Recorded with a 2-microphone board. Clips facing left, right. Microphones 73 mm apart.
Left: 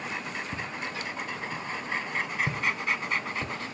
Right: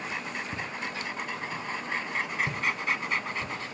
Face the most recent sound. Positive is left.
turn(degrees=40)  # may be behind; listen again after turning